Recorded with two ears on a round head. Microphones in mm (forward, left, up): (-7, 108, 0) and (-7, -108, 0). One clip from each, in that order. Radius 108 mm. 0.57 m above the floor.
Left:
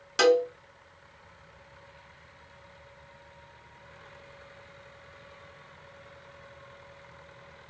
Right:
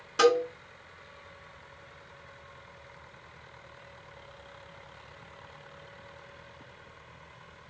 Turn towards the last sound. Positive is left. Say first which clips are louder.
# left 1 dB
turn(degrees=45)  # may be behind; listen again after turning